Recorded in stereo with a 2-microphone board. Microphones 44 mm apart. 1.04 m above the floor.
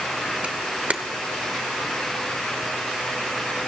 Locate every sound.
0.4 s a camera shutter: 30° right (ahead or behind), 1.0 m